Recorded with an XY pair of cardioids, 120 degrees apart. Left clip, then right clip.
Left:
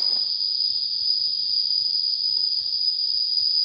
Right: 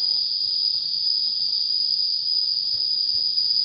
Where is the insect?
40° right, 0.9 m.